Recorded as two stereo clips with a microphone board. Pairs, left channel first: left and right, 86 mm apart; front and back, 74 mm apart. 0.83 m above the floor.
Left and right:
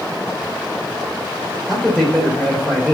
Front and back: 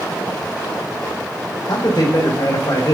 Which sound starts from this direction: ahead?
A man speaking, at 1.7 s.